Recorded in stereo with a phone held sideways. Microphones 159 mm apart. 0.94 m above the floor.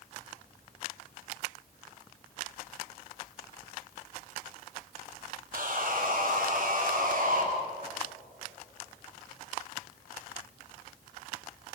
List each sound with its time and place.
5.5 s sawing: 60° right (ahead or behind), 4.5 m